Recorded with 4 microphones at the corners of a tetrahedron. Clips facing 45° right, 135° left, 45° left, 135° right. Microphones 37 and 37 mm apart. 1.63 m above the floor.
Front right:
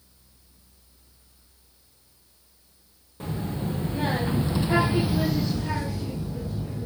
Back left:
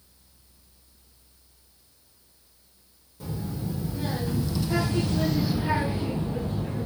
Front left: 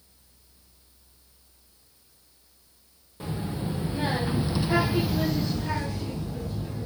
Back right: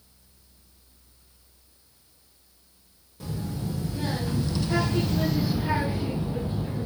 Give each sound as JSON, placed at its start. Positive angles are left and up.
{"t": 3.2, "sound": "a child speaking", "azimuth_deg": -10, "distance_m": 1.5}